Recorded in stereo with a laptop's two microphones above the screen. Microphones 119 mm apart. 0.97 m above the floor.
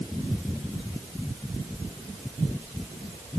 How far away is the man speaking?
No man speaking in this recording.